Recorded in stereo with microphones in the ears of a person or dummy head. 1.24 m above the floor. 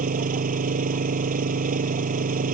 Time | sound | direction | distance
0.0 | an engine running | 40° right (ahead or behind) | ?